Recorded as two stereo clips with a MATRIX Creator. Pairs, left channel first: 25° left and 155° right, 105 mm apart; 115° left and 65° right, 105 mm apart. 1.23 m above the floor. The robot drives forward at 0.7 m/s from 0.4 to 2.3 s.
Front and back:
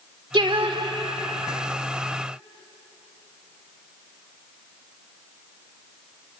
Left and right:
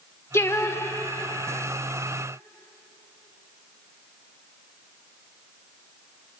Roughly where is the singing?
Behind.